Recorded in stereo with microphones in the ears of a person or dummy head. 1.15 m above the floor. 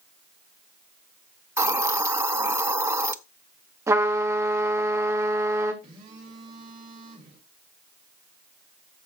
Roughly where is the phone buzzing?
Right.